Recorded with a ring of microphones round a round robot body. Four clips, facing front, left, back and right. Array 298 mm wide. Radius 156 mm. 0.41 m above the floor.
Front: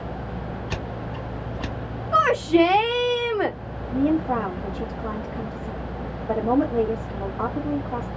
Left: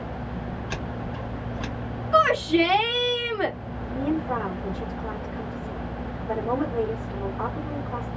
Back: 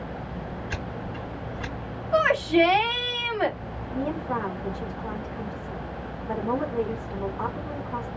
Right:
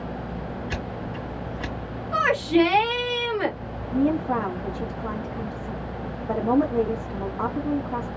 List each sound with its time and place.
0.7 s scissors: 25° right, 2.5 m
2.1 s a shout: 15° right, 1.5 m
3.9 s a woman speaking: 35° right, 2 m